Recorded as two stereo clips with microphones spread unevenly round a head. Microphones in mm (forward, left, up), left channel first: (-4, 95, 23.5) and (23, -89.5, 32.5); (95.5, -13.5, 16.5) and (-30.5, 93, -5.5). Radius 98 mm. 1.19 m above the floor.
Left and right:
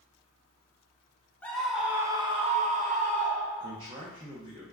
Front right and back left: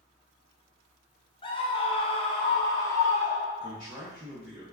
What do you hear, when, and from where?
1.4 s a scream: 20° left, 0.8 m; by 3.8 s 125° right, 1.2 m
3.6 s a man speaking: 150° right, 0.6 m